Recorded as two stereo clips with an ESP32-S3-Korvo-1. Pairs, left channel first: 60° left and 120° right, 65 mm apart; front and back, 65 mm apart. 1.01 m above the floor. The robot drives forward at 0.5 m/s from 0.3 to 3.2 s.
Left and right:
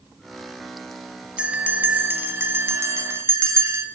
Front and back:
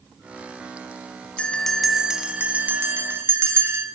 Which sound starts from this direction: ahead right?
A bell, at 1.4 s.